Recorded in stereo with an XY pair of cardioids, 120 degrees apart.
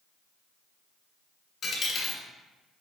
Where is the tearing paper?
No tearing paper in this recording.